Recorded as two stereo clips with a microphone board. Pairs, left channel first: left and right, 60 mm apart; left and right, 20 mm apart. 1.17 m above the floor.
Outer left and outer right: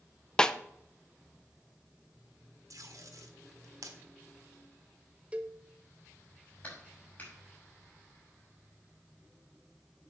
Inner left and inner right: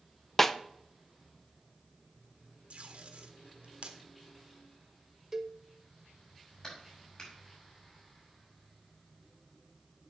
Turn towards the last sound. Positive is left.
turn(degrees=30)  # may be behind; listen again after turning